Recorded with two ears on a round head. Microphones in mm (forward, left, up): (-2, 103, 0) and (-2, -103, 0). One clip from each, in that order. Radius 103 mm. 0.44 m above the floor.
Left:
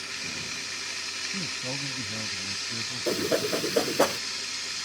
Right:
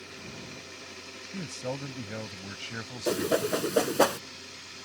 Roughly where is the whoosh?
Centre.